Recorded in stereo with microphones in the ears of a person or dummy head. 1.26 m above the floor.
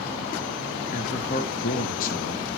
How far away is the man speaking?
About 1.8 m.